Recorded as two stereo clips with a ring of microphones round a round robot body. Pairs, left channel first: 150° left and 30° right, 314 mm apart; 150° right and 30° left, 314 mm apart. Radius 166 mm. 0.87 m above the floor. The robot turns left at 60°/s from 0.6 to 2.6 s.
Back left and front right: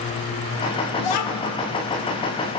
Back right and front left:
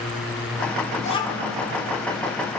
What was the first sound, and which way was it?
A child speaking, 145° left.